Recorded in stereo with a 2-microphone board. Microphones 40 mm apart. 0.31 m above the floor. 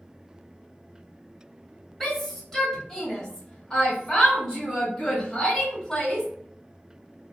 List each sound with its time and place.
2.0 s a shout: 5° left (ahead or behind), 1.3 m; by 6.3 s 15° left (ahead or behind), 1.6 m